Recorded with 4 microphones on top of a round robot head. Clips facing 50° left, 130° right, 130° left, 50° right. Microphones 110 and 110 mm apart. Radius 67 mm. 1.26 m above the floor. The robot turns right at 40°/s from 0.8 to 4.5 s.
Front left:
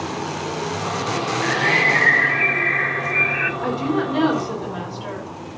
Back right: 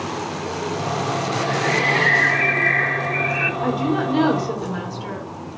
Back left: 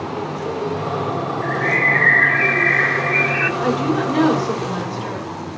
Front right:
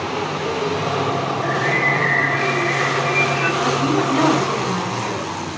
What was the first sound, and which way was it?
A bird, 75° left.